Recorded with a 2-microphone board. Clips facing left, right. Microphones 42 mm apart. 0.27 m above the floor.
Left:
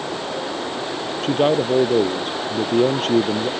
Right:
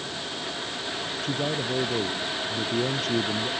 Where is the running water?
85° left.